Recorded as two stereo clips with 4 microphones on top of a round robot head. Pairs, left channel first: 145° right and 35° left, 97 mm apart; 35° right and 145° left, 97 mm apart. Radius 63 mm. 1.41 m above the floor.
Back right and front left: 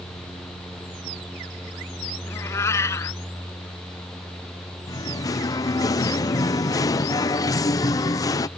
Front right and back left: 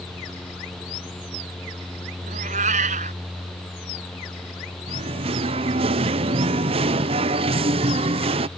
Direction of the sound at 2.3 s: 150° left.